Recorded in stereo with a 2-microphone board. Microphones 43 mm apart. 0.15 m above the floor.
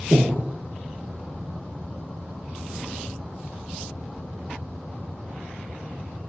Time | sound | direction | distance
0.1 | breathing | 55° right (ahead or behind) | 0.7 m